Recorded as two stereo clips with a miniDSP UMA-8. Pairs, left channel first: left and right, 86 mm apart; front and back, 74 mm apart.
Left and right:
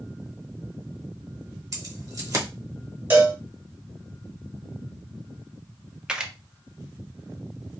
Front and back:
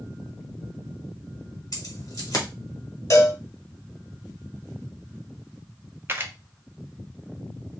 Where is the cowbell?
30° right, 1.4 m.